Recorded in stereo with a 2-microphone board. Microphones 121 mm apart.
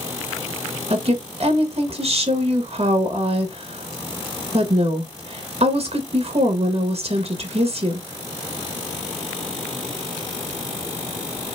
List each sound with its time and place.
0.9 s a woman speaking: 55° right (ahead or behind), 1.0 m